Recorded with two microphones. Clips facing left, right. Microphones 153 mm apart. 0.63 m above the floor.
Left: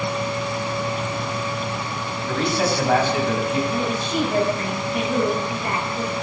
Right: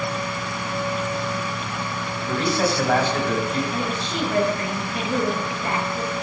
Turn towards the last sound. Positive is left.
turn(degrees=5)  # may be behind; listen again after turning